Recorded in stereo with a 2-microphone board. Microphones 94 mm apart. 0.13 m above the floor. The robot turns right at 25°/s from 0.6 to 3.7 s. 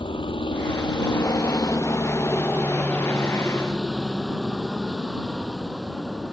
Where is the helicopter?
65° left (ahead or behind); by 6.3 s 5° right (ahead or behind).